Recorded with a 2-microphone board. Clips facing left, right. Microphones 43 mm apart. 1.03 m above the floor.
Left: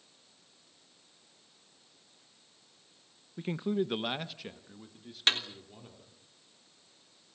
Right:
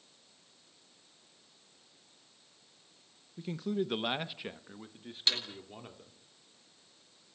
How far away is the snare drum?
About 3.5 m.